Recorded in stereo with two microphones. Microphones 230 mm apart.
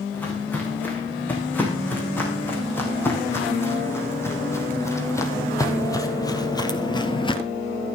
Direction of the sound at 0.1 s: 10° left (ahead or behind).